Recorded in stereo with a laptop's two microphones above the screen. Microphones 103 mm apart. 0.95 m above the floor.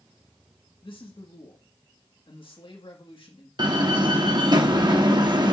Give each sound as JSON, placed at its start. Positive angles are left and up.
{"t": 0.8, "sound": "a man speaking", "side_deg": 60, "distance_m": 1.8}
{"t": 3.6, "sound": "a door slam", "side_deg": -45, "distance_m": 1.0}